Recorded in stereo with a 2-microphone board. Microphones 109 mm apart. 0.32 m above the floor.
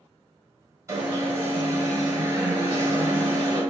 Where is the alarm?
25° right (ahead or behind), 1.4 m.